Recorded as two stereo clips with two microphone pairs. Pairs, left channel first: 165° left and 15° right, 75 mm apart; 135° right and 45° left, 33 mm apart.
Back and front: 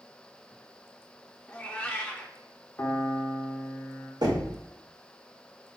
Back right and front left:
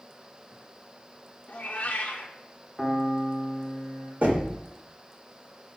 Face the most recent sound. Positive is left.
turn(degrees=5)